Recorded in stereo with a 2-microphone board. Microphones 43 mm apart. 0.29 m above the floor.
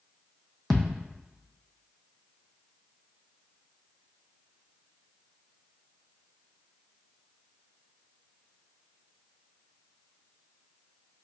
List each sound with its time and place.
0.7 s a thud: 5° left (ahead or behind), 0.7 m